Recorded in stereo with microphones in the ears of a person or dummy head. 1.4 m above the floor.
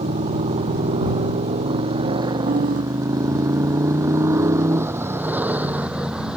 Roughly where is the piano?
Right.